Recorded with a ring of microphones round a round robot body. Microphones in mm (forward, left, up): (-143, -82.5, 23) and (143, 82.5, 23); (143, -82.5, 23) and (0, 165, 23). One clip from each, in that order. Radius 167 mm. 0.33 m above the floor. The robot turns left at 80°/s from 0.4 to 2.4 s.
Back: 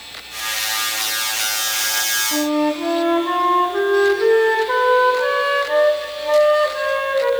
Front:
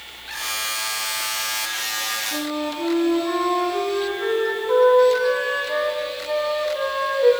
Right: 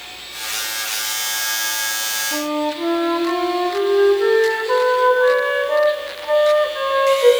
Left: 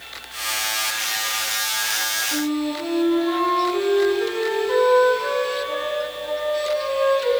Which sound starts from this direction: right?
A flute, at 2.3 s.